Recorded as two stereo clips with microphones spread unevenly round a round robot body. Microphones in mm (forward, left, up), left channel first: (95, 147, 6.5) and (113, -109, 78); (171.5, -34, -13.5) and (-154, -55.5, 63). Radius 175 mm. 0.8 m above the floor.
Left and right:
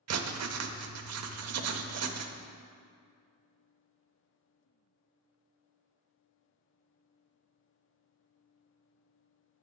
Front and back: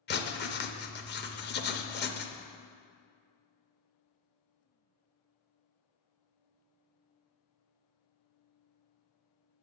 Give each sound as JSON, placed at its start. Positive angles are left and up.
{"t": 0.1, "sound": "writing", "azimuth_deg": -50, "distance_m": 0.7}